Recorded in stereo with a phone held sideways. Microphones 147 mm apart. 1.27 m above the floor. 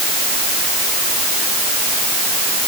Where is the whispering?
I don't hear whispering.